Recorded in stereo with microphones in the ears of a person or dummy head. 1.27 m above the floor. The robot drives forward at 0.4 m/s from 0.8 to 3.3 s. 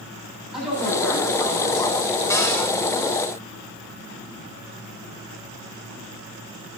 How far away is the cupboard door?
About 1.4 m.